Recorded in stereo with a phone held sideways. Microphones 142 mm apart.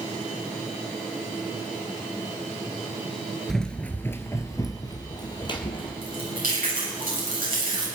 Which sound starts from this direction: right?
Chewing, at 6.0 s.